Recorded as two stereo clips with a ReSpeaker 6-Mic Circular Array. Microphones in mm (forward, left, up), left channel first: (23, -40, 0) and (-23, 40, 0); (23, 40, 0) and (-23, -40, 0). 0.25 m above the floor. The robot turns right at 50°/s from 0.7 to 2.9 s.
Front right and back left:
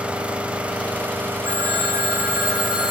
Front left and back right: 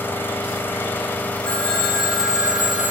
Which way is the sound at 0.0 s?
70° left.